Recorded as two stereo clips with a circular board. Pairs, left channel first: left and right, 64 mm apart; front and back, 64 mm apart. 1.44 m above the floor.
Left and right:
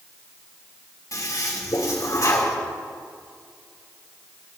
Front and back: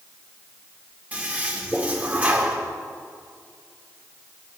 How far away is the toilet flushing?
About 2.5 m.